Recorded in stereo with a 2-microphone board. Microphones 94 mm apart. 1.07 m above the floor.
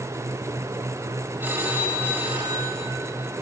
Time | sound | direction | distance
1.4 | a phone ringing | 20° right (ahead or behind) | 5 m